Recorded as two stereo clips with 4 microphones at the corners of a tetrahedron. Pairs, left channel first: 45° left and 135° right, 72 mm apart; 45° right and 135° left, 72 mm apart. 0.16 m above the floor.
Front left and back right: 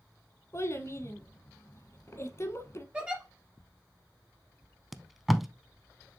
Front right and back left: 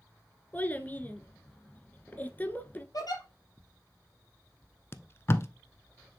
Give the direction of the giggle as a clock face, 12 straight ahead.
2 o'clock.